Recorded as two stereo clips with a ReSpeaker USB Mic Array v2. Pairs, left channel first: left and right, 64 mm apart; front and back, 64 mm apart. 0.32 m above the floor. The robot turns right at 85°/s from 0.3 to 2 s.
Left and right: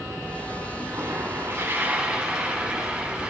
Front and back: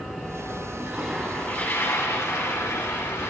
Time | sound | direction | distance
0.8 | a toilet flushing | 125° right | 2 m